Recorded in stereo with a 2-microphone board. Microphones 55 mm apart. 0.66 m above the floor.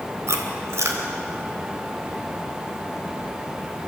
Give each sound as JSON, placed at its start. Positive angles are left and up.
{"t": 0.3, "sound": "chewing", "side_deg": -60, "distance_m": 3.0}